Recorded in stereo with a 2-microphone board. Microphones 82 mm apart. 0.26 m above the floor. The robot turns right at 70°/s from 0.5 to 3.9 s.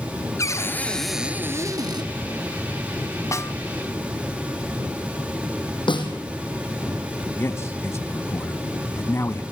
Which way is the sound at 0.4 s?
140° left.